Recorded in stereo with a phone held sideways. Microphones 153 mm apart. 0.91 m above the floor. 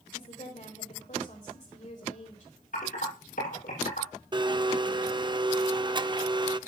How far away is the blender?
About 0.5 m.